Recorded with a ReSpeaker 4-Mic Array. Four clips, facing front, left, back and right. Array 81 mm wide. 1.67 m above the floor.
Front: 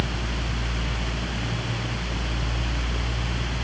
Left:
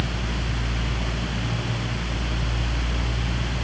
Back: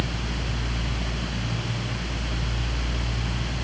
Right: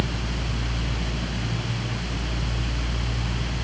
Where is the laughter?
I don't hear laughter.